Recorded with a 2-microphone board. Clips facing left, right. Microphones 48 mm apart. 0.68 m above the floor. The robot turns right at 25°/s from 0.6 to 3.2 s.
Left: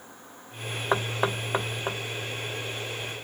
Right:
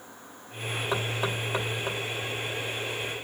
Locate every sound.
0.9 s knocking: 40° left (ahead or behind), 0.6 m; by 2.0 s 20° left (ahead or behind), 0.6 m